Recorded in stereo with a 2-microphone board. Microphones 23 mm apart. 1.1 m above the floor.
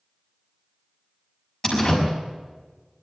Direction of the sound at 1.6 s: 20° left (ahead or behind).